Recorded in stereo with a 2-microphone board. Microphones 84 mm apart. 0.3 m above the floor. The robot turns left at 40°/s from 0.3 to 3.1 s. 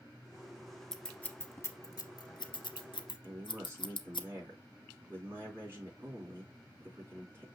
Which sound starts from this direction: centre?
Scissors, at 0.9 s.